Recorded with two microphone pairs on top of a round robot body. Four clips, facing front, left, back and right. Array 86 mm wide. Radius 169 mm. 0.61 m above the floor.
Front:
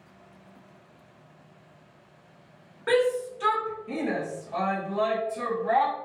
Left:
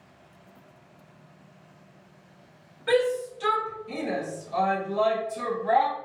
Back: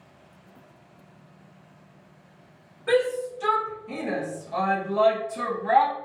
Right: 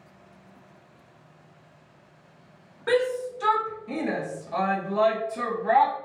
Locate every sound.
2.9 s a shout: 55° right, 1.4 m; by 5.9 s 130° right, 1.3 m